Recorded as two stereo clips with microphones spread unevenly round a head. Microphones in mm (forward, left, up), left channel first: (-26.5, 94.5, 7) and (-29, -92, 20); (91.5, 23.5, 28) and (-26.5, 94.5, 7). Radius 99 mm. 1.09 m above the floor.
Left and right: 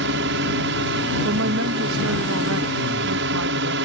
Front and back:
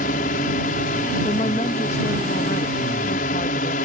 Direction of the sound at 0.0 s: 70° right.